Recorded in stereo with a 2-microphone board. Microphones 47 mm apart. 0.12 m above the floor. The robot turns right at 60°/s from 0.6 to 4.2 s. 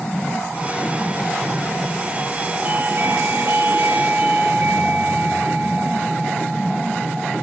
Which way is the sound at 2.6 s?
145° right.